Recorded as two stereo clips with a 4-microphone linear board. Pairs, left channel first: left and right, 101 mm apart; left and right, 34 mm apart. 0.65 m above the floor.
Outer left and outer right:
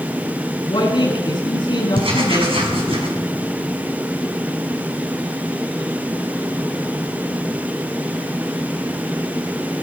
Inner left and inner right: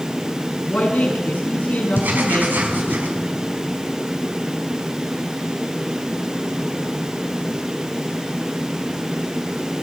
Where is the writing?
65° right (ahead or behind), 5.5 m.